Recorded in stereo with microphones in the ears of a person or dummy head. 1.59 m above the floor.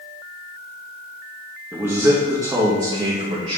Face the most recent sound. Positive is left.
turn(degrees=-45)  # may be behind; listen again after turning